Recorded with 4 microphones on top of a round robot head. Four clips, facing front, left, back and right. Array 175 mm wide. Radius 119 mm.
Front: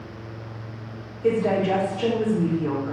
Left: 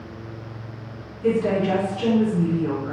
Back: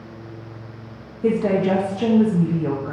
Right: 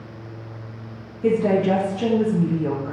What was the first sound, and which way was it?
A woman speaking, 150° right.